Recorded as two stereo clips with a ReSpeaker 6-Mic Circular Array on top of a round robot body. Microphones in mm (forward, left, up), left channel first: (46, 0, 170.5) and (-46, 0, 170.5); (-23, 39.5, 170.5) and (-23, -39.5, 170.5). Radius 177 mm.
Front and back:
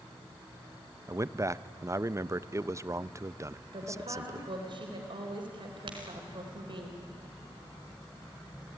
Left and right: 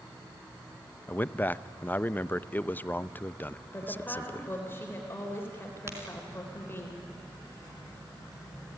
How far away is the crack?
About 4 m.